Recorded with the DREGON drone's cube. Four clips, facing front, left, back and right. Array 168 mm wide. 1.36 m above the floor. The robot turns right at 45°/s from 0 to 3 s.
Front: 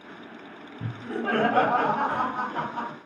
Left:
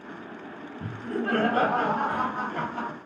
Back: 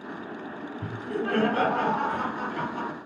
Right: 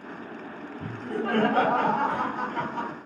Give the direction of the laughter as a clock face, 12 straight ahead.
1 o'clock.